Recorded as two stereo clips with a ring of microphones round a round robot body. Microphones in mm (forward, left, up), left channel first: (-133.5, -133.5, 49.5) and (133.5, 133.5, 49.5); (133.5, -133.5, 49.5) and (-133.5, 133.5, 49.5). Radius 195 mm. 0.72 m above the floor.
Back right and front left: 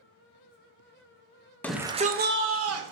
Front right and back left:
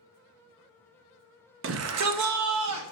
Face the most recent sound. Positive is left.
turn(degrees=90)